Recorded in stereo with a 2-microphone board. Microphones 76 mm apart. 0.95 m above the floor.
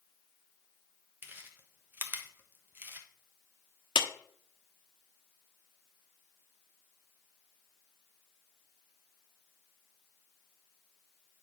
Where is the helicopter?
I don't hear a helicopter.